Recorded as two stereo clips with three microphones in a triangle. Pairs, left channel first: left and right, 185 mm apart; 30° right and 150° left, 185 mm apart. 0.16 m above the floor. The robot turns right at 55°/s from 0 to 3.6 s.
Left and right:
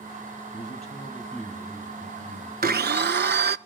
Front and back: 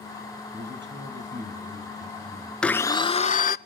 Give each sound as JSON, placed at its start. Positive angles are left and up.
{"t": 0.5, "sound": "a man speaking", "azimuth_deg": 130, "distance_m": 5.0}
{"t": 2.6, "sound": "a blender", "azimuth_deg": -115, "distance_m": 0.7}